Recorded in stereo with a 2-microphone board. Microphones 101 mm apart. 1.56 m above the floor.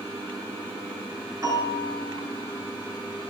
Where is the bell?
35° right (ahead or behind), 5 m.